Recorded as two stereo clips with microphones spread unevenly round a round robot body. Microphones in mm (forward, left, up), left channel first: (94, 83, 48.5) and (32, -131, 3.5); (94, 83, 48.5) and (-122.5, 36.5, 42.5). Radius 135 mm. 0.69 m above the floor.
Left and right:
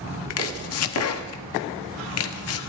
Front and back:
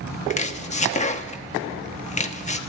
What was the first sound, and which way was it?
Chopping, 70° left.